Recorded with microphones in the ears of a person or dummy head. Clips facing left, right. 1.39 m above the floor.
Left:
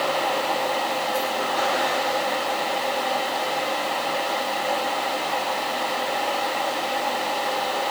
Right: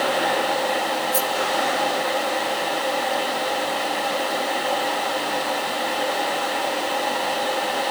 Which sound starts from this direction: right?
A rattle, at 1.1 s.